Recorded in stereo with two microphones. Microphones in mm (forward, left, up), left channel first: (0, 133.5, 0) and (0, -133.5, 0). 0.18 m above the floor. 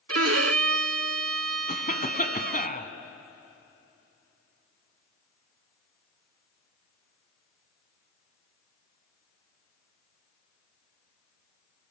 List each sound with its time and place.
0.1 s a violin: 60° right (ahead or behind), 0.5 m
1.7 s a cough: 30° left (ahead or behind), 1.8 m